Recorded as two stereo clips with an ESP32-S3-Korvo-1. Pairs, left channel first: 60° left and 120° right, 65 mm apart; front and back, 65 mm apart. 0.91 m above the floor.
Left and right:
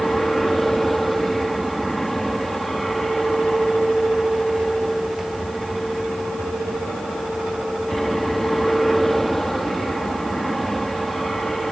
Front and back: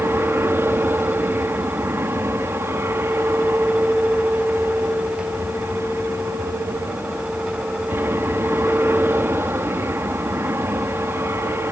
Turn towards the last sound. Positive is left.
turn(degrees=145)